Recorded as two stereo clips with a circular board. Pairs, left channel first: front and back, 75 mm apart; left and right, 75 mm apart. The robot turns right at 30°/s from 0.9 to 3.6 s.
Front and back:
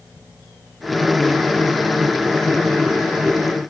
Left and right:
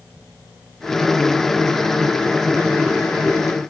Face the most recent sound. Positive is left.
No sound to turn to.